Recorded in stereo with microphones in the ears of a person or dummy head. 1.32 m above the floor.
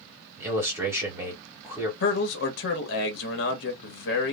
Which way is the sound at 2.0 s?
65° left (ahead or behind).